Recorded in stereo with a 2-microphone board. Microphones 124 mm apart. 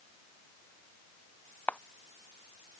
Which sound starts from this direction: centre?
A camera shutter, at 1.7 s.